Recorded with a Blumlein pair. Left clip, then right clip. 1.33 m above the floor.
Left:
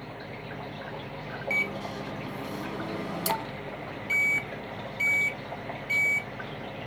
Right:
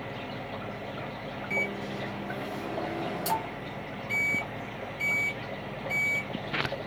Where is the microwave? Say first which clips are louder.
Left 2 dB; 20° left, 1.5 m.